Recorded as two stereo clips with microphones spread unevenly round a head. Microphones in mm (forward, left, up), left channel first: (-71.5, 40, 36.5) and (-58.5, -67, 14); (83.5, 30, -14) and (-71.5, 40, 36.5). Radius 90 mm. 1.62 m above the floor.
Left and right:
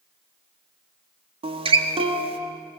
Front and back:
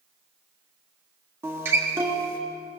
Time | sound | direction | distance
1.4 | a guitar | 120° right | 1.7 m